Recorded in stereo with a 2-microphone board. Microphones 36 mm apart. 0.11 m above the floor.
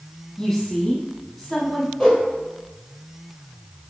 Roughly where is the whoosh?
Left.